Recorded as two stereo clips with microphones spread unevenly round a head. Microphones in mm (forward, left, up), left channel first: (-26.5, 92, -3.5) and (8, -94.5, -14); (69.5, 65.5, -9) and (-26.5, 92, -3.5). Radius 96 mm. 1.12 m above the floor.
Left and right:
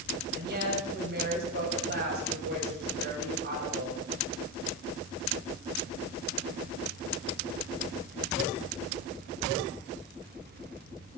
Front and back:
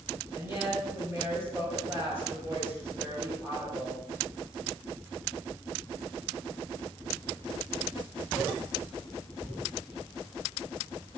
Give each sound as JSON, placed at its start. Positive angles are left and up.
{"t": 0.3, "sound": "a woman speaking", "azimuth_deg": -120, "distance_m": 7.5}